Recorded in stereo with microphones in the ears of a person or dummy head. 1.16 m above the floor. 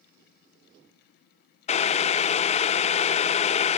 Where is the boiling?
30° left (ahead or behind).